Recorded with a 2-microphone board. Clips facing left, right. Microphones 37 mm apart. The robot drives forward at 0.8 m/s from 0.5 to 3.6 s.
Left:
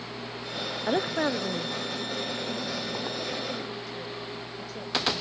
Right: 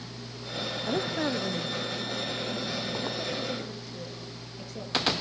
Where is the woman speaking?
30° left (ahead or behind), 0.5 m; by 5.1 s 5° left (ahead or behind), 2.5 m.